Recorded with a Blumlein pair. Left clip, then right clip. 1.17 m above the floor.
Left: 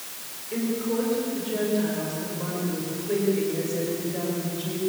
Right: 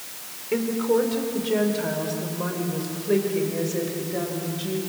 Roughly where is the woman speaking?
Ahead right.